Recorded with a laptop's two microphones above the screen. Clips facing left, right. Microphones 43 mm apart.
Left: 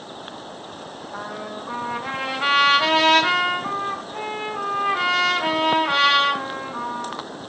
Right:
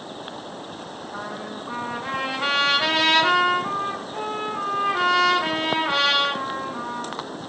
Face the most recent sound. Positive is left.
turn(degrees=5)  # may be behind; listen again after turning